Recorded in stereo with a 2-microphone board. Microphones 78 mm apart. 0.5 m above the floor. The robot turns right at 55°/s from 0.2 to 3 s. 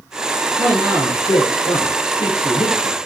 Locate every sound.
0.6 s a man speaking: 35° left (ahead or behind), 8.5 m; by 3.1 s 10° left (ahead or behind), 8.5 m